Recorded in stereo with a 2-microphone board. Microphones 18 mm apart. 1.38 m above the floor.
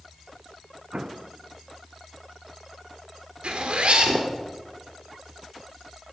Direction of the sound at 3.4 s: 70° right (ahead or behind).